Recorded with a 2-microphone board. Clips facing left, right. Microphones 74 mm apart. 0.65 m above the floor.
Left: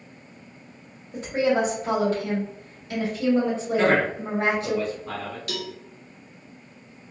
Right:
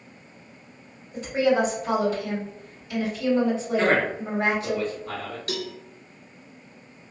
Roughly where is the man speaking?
Centre.